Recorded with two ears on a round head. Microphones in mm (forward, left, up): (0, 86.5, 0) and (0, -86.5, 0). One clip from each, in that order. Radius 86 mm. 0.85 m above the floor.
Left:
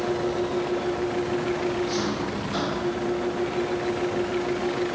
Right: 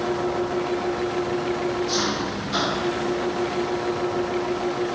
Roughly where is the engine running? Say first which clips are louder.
Right 1 dB; right.